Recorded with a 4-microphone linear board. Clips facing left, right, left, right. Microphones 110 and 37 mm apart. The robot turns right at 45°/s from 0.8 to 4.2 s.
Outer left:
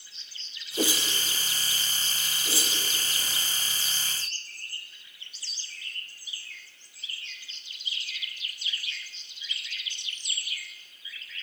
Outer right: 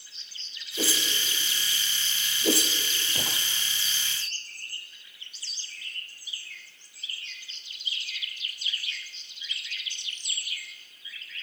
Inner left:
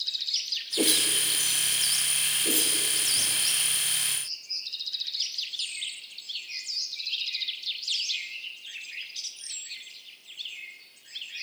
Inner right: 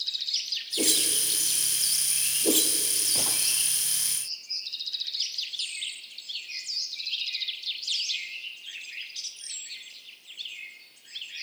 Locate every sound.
0.8 s a whoosh: 20° left (ahead or behind), 1.0 m; by 3.4 s 80° right, 1.0 m